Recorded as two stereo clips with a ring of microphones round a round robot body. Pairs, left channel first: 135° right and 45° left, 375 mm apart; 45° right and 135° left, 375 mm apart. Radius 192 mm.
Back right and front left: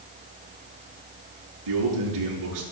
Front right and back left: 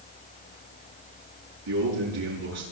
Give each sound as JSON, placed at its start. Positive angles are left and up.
{"t": 1.7, "sound": "a man speaking", "azimuth_deg": 85, "distance_m": 8.0}